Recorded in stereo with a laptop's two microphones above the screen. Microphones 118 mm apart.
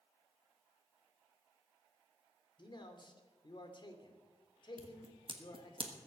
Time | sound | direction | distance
2.6 | a man speaking | 40° left (ahead or behind) | 2.5 m
4.8 | scissors | 45° right (ahead or behind) | 1.3 m